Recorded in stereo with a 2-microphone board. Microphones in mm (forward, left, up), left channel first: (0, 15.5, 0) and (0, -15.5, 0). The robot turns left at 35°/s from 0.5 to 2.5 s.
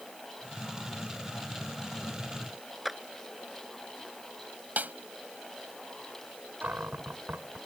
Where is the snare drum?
65° right (ahead or behind).